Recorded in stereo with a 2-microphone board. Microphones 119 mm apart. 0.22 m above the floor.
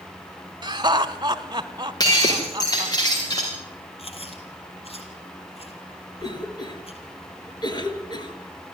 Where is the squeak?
I don't hear a squeak.